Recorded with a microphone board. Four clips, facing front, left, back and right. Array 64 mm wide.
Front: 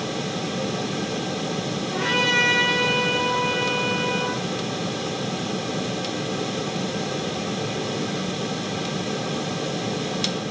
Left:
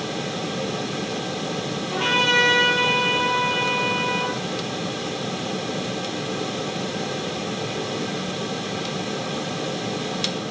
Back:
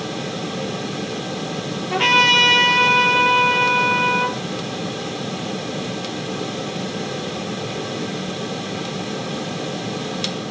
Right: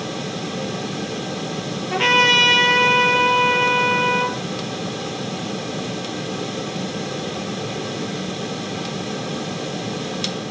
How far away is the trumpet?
About 4.5 m.